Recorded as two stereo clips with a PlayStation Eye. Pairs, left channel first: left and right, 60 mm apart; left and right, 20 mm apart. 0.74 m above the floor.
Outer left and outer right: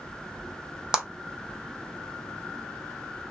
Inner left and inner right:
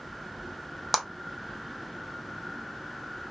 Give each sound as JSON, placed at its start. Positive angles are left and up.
{"t": 0.9, "sound": "a clap", "side_deg": -10, "distance_m": 0.6}